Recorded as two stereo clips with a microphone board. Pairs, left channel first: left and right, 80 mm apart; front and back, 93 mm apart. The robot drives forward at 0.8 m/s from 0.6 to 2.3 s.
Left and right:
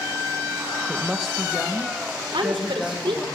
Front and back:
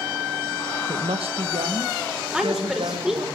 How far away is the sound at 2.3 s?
About 5.5 m.